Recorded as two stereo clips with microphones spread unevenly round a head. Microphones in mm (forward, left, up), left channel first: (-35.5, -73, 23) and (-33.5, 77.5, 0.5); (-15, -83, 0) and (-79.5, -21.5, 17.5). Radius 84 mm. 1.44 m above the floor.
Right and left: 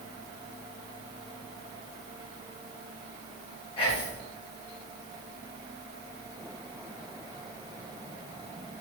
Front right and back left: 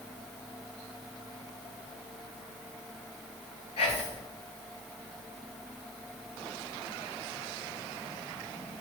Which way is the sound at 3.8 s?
30° right.